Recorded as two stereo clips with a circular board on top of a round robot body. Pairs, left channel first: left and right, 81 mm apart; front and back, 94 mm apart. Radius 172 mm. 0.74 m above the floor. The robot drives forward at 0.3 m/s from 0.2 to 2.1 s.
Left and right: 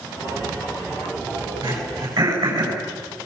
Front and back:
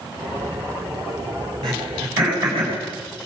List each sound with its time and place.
1.6 s throat clearing: 140° right, 8.5 m